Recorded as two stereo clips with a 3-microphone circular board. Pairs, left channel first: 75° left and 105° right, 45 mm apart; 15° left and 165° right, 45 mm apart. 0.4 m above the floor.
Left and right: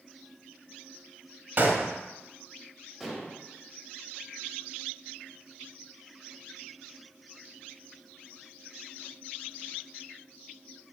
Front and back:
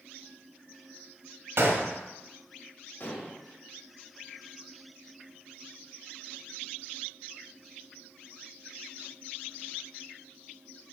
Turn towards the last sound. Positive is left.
turn(degrees=-20)